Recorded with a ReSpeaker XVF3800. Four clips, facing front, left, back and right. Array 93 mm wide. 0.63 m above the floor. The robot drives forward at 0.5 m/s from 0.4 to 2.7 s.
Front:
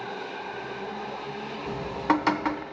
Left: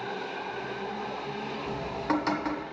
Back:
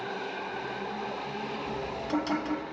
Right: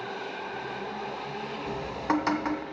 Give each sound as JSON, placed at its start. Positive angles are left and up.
{"t": 1.7, "sound": "dripping", "azimuth_deg": -5, "distance_m": 1.6}